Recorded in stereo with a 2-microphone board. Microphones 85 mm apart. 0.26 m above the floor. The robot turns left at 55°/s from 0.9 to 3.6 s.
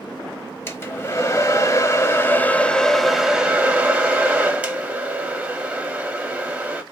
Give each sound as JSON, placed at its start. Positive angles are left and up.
{"t": 0.7, "sound": "a hair dryer", "azimuth_deg": 125, "distance_m": 1.0}